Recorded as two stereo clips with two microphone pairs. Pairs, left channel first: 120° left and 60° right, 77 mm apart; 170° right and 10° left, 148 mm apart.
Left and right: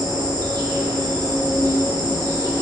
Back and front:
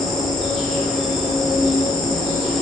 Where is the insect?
80° right, 1.5 m.